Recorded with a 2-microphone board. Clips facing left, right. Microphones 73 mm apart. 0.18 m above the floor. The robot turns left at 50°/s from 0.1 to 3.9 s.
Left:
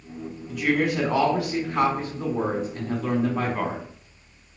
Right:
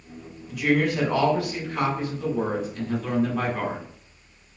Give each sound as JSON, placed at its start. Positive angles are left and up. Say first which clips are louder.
{"t": 0.5, "sound": "a woman speaking", "louder": "right 1 dB", "azimuth_deg": -175, "distance_m": 1.7}